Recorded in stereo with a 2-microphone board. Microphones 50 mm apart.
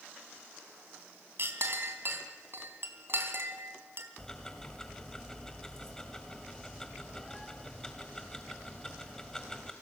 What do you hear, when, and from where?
1.4 s a clink: 50° right (ahead or behind), 2.5 m
4.2 s ticking: 10° left (ahead or behind), 2.5 m